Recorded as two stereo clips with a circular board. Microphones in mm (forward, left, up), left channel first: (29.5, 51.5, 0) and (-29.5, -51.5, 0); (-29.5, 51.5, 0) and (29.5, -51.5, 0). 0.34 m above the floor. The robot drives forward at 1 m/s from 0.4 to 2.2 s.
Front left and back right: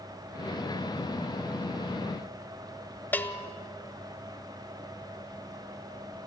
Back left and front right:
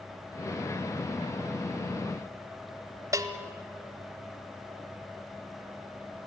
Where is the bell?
10° right, 1.5 m.